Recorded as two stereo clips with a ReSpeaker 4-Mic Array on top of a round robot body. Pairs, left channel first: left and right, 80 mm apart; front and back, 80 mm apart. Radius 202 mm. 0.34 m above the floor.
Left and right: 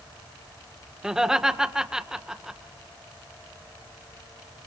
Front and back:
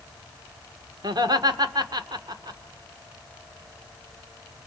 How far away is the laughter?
About 2 m.